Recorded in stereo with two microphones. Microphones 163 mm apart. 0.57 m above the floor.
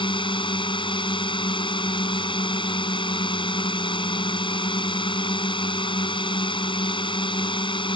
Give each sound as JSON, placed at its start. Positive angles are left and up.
{"t": 0.0, "sound": "a drone", "side_deg": 30}